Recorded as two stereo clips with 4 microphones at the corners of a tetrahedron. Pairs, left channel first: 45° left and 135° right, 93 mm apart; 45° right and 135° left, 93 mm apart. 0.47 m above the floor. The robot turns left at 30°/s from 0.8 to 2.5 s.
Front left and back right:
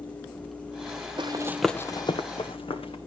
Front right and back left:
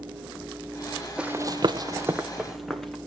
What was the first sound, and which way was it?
Running footsteps, 150° right.